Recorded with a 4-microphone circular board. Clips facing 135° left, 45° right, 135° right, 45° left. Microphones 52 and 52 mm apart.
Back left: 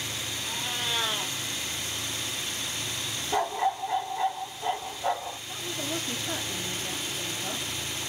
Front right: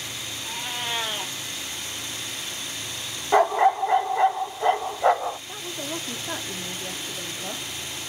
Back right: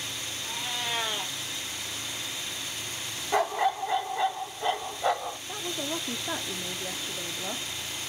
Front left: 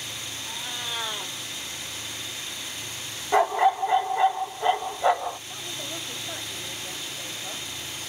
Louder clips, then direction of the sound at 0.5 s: Front right 2 dB, back right 2 dB; 100° right.